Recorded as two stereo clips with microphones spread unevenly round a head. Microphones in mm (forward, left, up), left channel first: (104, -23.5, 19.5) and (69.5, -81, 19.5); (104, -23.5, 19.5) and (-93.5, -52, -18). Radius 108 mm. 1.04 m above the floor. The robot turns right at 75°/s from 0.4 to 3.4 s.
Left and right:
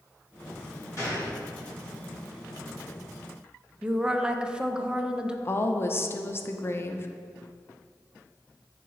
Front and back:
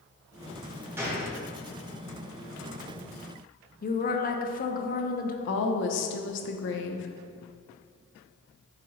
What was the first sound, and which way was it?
A gunshot, 115° left.